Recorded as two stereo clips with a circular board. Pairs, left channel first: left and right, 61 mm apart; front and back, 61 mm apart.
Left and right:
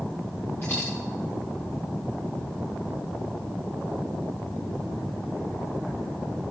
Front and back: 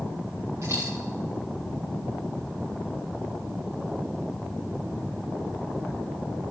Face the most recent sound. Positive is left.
turn(degrees=140)